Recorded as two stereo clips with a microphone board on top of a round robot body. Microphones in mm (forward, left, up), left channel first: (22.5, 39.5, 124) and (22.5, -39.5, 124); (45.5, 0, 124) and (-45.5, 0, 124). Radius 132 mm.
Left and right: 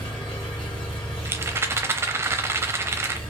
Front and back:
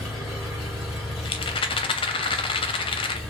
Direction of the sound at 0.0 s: 90° left.